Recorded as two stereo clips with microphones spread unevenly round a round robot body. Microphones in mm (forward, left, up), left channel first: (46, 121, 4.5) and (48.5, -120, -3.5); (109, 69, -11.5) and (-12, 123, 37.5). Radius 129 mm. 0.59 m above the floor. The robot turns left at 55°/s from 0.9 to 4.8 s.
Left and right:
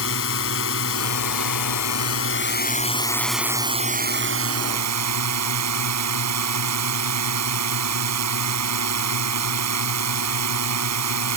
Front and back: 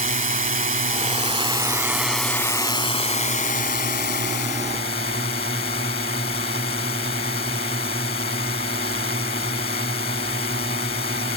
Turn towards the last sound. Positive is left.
turn(degrees=-80)